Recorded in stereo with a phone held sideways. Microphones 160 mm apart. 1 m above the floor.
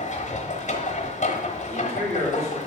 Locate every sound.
0.0 s a machine running: 50° left (ahead or behind), 1.0 m
1.7 s a man speaking: 70° right (ahead or behind), 3 m